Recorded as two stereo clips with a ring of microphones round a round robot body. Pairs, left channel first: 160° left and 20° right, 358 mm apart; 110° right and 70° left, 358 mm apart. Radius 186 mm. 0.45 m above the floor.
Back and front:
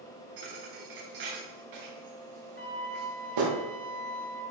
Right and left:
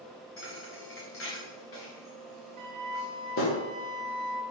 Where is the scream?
I don't hear a scream.